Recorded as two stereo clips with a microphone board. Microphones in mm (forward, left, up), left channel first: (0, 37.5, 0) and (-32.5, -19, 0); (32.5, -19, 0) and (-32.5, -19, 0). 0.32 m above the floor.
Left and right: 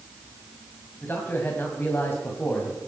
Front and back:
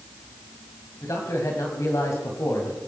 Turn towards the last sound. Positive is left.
turn(degrees=10)